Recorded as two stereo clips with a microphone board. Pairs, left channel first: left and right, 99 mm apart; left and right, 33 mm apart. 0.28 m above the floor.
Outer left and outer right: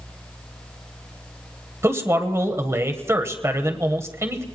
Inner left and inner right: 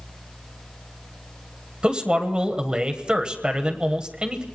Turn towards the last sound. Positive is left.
turn(degrees=-30)  # may be behind; listen again after turning